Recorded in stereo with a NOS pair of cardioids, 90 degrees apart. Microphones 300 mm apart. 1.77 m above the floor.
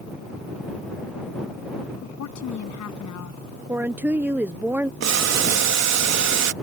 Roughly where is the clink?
No clink in this recording.